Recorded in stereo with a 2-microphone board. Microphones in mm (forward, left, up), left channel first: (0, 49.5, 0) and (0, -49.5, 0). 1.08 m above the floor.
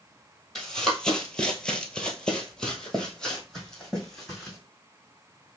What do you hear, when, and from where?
0.6 s running footsteps: 10° left (ahead or behind), 1.4 m; by 4.6 s 5° left (ahead or behind), 2.5 m